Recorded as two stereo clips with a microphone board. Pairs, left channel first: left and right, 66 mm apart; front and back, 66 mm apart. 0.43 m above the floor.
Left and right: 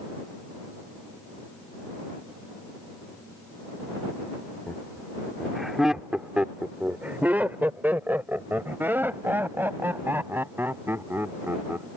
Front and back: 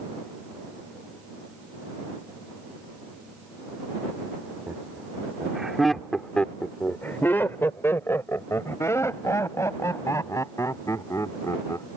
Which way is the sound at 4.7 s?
155° left.